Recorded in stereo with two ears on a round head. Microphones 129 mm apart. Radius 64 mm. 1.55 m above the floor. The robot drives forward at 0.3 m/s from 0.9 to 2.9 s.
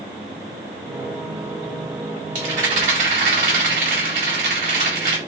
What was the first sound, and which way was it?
A rattle, 60° right (ahead or behind).